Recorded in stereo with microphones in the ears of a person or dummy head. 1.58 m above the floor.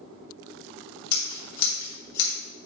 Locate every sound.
1.1 s scissors: 60° left (ahead or behind), 2.5 m